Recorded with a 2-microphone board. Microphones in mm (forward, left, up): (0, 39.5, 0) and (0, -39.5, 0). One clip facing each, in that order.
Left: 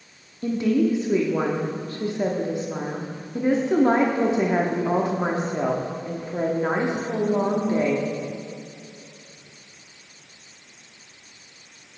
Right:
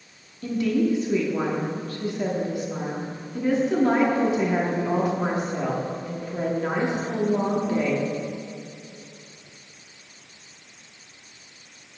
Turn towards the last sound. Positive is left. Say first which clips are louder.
# left 2 dB
turn(degrees=25)  # may be behind; listen again after turning